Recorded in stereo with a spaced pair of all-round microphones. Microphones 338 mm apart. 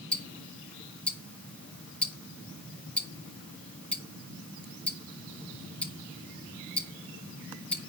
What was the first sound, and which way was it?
Ticking, 5° left (ahead or behind).